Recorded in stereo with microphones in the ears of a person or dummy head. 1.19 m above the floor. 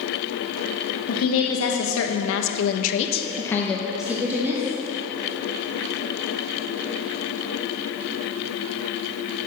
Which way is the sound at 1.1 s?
70° left (ahead or behind).